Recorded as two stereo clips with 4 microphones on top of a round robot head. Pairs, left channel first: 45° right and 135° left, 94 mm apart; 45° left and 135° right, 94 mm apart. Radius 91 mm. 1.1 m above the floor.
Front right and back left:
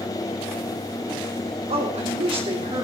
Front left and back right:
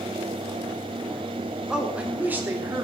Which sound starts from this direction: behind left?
A man speaking, at 1.7 s.